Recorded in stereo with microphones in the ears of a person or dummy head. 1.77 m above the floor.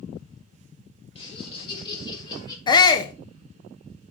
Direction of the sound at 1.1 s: 35° left (ahead or behind).